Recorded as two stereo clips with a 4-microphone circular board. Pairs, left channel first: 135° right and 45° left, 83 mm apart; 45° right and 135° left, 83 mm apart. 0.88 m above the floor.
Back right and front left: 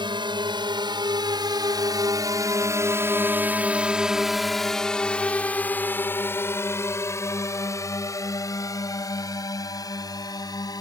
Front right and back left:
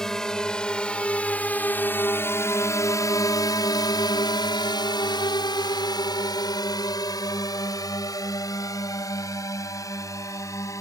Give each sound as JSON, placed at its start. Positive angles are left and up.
{"t": 0.0, "sound": "a drone", "azimuth_deg": 40}